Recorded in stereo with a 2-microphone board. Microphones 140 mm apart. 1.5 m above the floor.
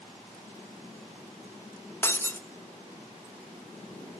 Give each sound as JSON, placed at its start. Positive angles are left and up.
{"t": 2.0, "sound": "breaking glass", "side_deg": 15, "distance_m": 0.9}